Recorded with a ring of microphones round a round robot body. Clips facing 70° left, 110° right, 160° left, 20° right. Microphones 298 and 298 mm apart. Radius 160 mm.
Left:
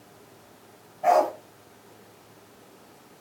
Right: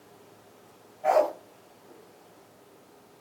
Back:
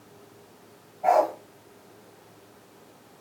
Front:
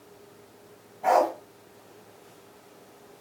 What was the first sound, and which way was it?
A dog barking, 45° left.